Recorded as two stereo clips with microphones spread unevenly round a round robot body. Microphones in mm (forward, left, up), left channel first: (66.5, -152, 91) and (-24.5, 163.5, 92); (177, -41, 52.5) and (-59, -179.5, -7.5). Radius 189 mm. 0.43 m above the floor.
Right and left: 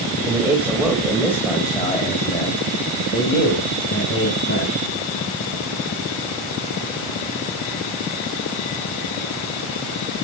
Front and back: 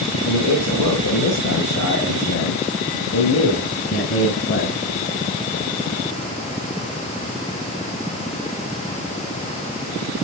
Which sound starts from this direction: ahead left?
A man speaking, at 0.2 s.